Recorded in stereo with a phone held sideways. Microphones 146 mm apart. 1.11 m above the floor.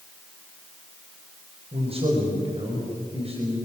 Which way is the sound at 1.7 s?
40° right (ahead or behind).